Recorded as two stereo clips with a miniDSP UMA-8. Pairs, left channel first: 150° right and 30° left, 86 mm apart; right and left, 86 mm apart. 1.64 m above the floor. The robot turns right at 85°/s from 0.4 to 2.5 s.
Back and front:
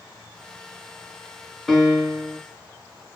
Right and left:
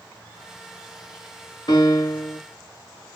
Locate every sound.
1.7 s a piano: 65° right, 2 m; by 2.4 s 5° right, 2 m